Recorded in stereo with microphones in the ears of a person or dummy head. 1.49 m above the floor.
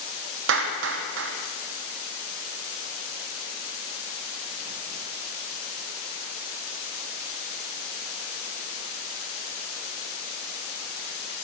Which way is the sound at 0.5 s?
65° right (ahead or behind).